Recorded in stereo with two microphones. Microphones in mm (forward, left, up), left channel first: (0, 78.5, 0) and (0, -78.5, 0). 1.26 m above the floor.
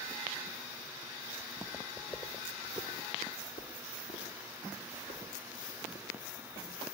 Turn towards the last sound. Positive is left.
turn(degrees=70)  # may be behind; listen again after turning